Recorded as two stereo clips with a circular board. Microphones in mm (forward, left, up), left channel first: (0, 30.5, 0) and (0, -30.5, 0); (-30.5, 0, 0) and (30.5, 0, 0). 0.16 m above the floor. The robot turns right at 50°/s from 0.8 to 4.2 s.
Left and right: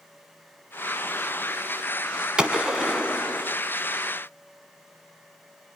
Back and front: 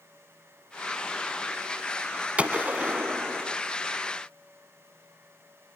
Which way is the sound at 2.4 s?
35° right.